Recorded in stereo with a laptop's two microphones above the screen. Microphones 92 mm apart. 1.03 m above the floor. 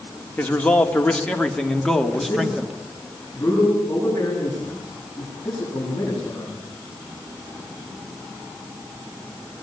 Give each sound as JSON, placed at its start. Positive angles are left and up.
{"t": 0.4, "sound": "a man speaking", "side_deg": 15, "distance_m": 3.5}
{"t": 2.1, "sound": "a man speaking", "side_deg": 20, "distance_m": 10.0}